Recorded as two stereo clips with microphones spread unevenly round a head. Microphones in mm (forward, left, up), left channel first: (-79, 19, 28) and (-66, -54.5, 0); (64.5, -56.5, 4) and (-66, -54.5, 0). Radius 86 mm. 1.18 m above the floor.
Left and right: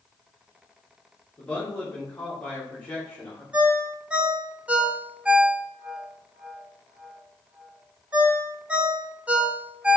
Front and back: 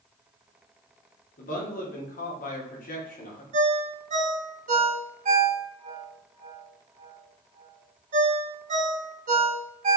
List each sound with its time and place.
1.4 s a man speaking: 10° left, 1.1 m
3.5 s a ringtone: 165° right, 0.8 m